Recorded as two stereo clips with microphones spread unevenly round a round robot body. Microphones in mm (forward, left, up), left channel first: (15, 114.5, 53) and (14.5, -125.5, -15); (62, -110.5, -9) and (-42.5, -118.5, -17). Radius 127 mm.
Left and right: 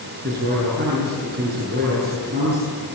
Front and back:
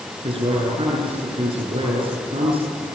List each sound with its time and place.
0.2 s a man speaking: 145° right, 8.5 m